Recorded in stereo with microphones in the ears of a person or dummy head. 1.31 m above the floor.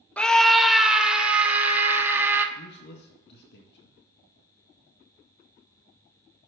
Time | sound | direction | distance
0.2 | a scream | 10° left (ahead or behind) | 0.6 m
2.5 | a man speaking | 65° left (ahead or behind) | 1.5 m